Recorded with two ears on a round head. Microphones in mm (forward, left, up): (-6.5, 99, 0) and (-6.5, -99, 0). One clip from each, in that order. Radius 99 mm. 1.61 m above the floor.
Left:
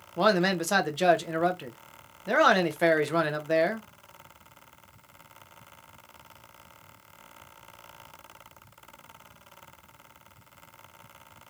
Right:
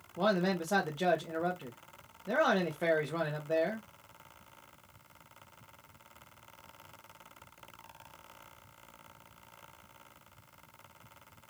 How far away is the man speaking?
About 0.9 m.